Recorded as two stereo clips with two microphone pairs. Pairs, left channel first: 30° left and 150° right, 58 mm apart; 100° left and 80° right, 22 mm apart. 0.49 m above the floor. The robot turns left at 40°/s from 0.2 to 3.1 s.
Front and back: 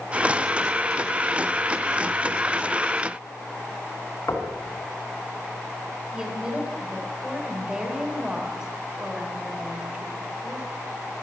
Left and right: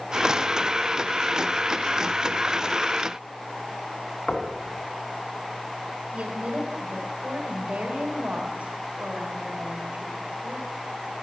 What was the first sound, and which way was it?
Knocking, 60° left.